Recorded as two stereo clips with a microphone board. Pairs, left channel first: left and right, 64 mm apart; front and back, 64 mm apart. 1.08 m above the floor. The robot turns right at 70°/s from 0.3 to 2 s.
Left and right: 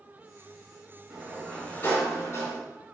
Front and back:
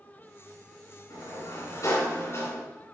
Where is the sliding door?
20° right, 3.5 m; by 2.6 s 45° left, 3.5 m.